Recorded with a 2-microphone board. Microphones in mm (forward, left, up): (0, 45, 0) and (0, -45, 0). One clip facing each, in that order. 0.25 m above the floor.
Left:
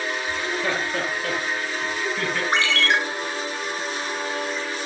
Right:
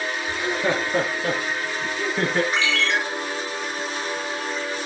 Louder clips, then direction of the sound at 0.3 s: Right 4 dB; 15° right (ahead or behind).